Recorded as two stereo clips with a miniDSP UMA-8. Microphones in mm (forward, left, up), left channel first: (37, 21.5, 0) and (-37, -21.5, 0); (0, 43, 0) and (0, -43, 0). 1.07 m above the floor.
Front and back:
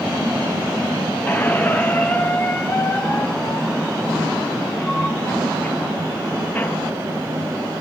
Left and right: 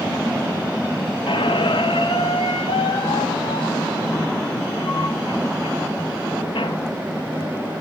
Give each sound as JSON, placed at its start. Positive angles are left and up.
{"t": 1.3, "sound": "a squeak", "azimuth_deg": 100, "distance_m": 0.7}